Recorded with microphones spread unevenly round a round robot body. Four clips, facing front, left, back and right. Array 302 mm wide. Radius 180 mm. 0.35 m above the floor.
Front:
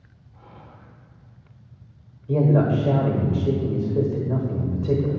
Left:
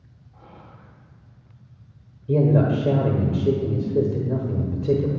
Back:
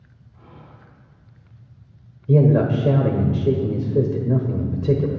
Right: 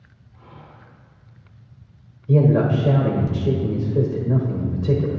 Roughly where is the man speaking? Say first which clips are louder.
Right 2 dB, back 3 dB; behind.